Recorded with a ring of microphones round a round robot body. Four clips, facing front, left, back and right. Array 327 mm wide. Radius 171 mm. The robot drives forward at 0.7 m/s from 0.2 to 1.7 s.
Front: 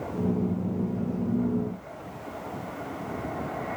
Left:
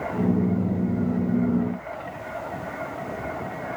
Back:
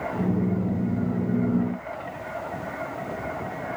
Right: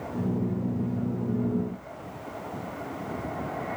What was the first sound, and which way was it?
Only background noise.